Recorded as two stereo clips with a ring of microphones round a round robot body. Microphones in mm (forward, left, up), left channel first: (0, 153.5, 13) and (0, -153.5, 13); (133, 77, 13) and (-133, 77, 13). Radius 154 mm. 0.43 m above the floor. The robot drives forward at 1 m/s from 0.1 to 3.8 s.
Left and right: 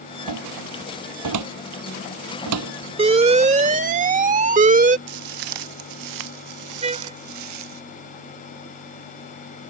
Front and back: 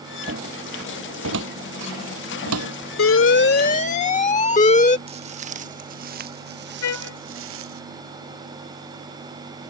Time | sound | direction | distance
0.3 | a cupboard door | 120° right | ?
3.0 | an alarm | 20° right | ?
5.1 | footsteps | 110° right | ?
6.8 | a trumpet | 20° right | ?